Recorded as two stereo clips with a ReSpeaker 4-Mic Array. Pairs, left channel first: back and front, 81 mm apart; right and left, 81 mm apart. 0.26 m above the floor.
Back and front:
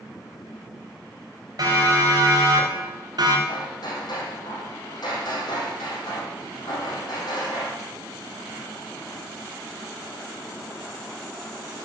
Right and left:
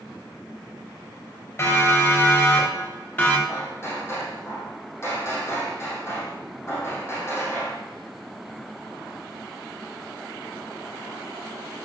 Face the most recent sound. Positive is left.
turn(degrees=-150)